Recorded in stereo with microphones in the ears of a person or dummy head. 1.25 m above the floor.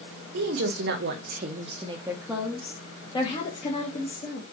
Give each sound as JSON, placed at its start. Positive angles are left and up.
{"t": 0.3, "sound": "a woman speaking", "side_deg": -75, "distance_m": 1.4}